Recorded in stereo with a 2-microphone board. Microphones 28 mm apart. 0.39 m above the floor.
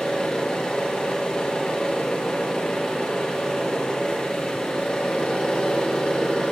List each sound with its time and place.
0.0 s an engine running: 30° left (ahead or behind), 3.5 m